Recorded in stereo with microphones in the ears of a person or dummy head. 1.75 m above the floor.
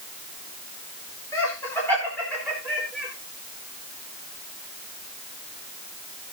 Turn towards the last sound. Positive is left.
turn(degrees=0)  # may be behind; listen again after turning